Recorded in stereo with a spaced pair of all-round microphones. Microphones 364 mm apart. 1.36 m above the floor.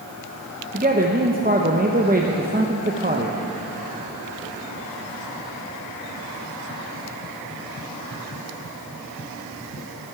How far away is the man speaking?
About 0.9 m.